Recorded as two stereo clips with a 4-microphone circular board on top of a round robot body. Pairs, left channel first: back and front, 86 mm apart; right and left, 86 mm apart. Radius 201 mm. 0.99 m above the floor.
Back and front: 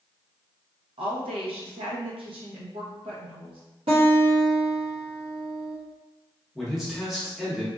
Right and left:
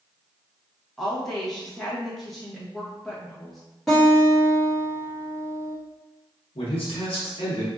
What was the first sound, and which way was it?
A woman speaking, straight ahead.